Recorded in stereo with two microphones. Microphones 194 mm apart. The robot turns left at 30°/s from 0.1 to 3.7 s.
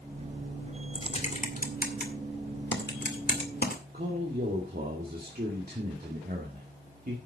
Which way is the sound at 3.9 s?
55° right (ahead or behind).